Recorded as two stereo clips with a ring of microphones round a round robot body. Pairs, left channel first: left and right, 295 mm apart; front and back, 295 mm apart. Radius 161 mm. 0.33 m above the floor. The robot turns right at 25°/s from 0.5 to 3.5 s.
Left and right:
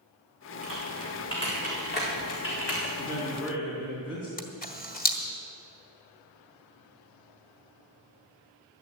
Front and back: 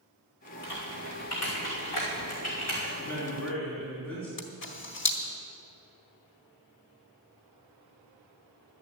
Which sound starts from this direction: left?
A man speaking, at 3.0 s.